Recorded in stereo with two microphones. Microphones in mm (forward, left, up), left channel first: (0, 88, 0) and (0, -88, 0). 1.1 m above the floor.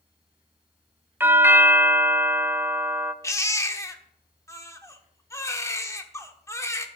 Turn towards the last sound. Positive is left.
turn(degrees=15)  # may be behind; listen again after turning